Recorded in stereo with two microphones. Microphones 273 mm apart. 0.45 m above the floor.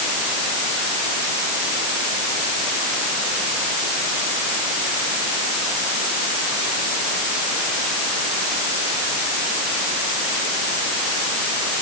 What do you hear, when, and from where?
Only background noise.